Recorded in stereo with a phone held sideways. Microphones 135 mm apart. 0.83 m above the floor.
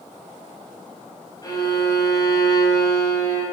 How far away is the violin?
About 5 m.